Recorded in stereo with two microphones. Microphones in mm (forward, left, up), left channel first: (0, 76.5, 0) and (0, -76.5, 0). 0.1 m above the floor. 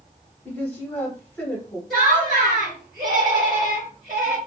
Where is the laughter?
Centre (ahead or behind), 1.9 m.